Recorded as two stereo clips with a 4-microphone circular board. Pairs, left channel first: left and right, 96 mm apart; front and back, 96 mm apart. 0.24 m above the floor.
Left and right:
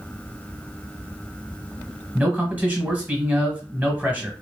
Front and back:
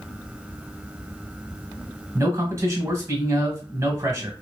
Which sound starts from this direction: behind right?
A man speaking, at 2.1 s.